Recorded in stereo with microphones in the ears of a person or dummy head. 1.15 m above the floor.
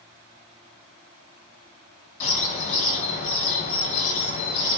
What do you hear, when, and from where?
2.2 s a bird: 40° left (ahead or behind), 1.6 m